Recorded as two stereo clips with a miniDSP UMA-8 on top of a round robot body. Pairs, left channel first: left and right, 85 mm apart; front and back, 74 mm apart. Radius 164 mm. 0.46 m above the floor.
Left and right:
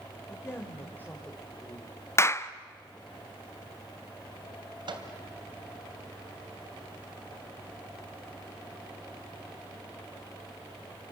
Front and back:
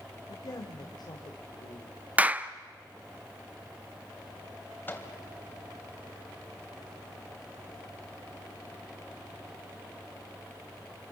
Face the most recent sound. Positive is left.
turn(degrees=-65)